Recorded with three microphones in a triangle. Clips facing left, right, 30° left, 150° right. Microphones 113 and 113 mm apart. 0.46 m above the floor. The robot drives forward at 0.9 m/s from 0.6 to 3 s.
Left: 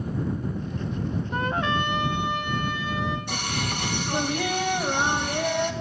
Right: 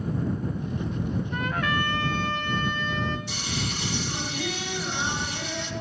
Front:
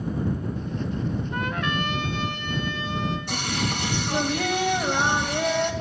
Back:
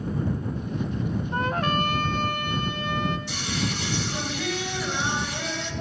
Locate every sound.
1.3 s a trumpet: 145° left, 0.6 m; by 3.2 s 170° left, 2 m
3.3 s singing: 60° left, 3 m